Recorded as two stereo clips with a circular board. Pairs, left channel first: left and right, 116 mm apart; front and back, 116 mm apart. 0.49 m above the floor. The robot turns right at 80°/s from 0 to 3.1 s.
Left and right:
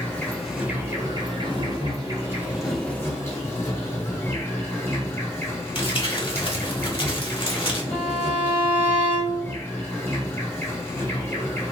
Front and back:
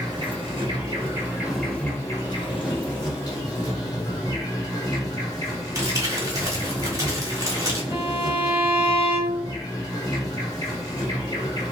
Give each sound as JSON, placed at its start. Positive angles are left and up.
{"t": 0.0, "sound": "an insect", "azimuth_deg": 145, "distance_m": 1.4}
{"t": 5.8, "sound": "crumpling", "azimuth_deg": 125, "distance_m": 1.2}
{"t": 7.9, "sound": "a violin", "azimuth_deg": 145, "distance_m": 1.2}